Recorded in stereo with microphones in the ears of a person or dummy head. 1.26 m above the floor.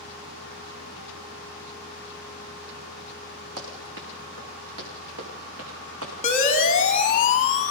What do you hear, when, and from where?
3.6 s running footsteps: 70° right (ahead or behind), 6 m; by 6.1 s 80° right, 7 m
6.2 s a siren: 35° left (ahead or behind), 2.5 m; by 7.7 s 30° left (ahead or behind), 3 m